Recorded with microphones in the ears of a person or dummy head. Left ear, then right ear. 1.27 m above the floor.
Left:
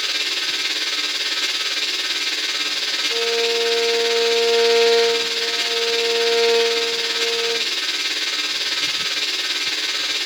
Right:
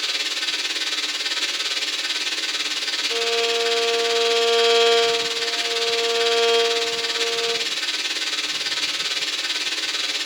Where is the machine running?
10° right (ahead or behind), 1.9 m.